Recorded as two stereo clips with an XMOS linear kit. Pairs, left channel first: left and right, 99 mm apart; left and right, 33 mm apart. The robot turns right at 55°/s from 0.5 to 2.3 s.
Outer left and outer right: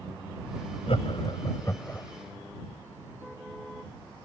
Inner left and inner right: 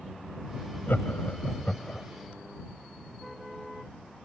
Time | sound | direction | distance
0.9 | laughter | 75° left (ahead or behind) | ?